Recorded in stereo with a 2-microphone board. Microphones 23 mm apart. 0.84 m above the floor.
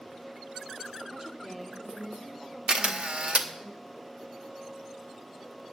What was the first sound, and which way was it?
A woman speaking, 25° right (ahead or behind).